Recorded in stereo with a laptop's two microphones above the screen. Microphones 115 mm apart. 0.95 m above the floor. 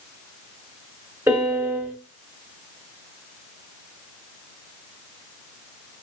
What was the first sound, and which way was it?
A piano, 20° right (ahead or behind).